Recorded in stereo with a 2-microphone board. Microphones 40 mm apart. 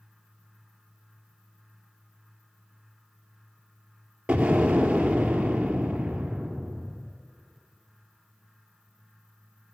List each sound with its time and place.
4.3 s an explosion: 30° right (ahead or behind), 2.5 m